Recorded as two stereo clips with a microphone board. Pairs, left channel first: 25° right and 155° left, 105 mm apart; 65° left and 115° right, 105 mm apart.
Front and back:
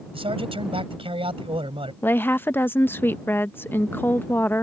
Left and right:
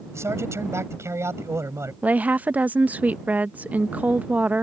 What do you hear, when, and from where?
0.1 s a man speaking: 175° right
2.0 s a woman speaking: 60° right